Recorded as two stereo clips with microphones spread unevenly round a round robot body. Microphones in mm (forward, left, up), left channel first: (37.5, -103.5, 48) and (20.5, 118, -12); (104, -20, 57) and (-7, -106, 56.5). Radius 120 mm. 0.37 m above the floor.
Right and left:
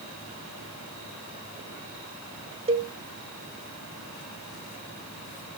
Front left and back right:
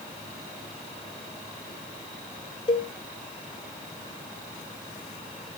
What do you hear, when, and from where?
2.7 s a cowbell: 75° left, 1.5 m